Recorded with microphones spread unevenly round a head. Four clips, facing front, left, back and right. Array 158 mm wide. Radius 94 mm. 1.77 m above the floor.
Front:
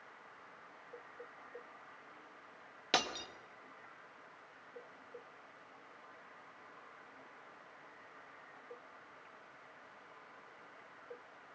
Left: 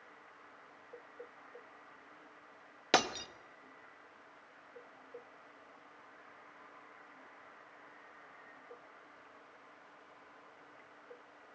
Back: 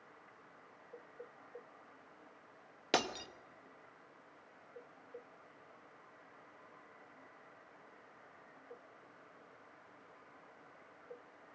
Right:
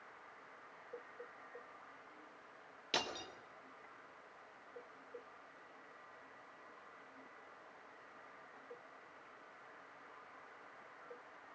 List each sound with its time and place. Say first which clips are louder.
2.9 s breaking glass: left 10 dB, back 1 dB; 115° left, 1.4 m